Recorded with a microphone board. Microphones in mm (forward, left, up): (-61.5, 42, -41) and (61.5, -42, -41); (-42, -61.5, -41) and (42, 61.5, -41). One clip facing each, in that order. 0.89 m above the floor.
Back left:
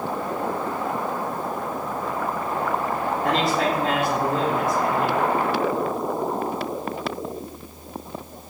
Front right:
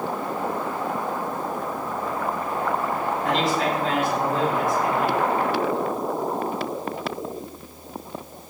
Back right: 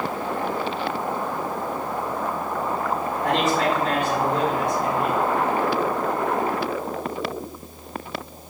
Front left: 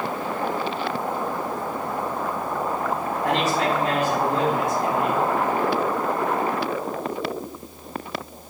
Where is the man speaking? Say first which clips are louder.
Back left 1 dB, back right 1 dB; 135° left, 2 m.